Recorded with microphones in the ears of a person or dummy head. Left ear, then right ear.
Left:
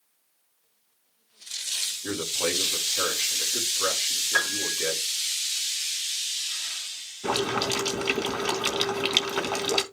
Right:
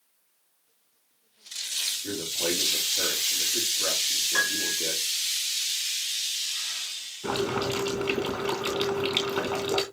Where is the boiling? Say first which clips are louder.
Left 2 dB; 25° left (ahead or behind), 4 m.